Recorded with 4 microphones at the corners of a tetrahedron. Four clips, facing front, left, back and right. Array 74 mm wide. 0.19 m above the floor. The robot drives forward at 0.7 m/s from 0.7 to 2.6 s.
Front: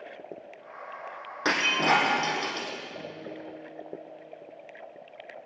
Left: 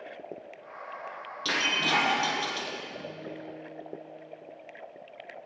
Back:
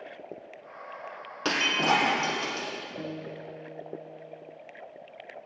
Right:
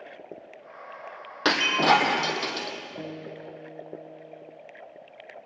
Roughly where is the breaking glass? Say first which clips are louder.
Right 7 dB, front 1 dB; right.